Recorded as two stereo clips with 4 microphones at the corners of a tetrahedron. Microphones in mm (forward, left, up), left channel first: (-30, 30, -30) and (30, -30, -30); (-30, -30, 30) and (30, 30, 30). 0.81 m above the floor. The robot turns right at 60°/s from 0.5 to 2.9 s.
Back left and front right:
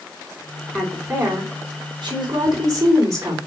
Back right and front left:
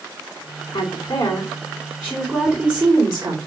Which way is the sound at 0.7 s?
140° right.